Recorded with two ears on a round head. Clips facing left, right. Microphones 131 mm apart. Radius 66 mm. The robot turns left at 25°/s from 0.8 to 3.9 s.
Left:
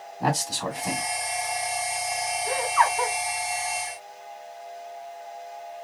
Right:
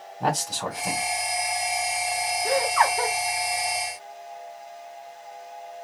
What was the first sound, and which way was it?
A man speaking, centre (ahead or behind).